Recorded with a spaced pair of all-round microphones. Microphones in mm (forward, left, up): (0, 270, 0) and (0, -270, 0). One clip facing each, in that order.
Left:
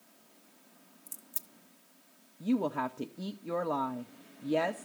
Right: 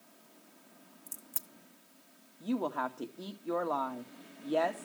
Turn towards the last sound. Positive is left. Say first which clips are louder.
# left 4 dB
turn(degrees=50)  # may be behind; listen again after turning